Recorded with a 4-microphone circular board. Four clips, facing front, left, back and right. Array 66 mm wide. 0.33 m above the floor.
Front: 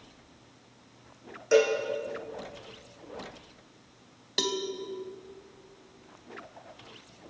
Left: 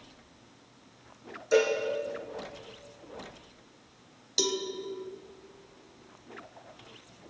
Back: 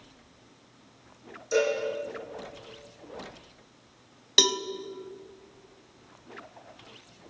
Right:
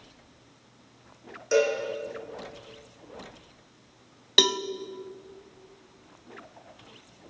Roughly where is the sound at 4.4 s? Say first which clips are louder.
Right 5 dB, back 4 dB; right.